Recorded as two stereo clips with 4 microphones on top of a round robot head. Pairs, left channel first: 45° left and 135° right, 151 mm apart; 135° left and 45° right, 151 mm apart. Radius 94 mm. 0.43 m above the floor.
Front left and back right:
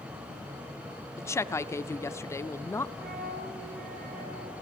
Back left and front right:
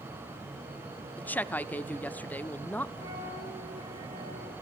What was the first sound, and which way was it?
A woman speaking, 75° left.